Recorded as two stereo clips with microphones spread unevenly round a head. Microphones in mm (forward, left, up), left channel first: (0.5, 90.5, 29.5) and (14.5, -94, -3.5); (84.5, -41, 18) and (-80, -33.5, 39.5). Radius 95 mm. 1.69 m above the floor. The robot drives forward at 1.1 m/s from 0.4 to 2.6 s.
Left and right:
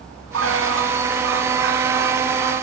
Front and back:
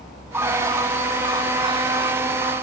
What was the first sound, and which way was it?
A bird, 110° right.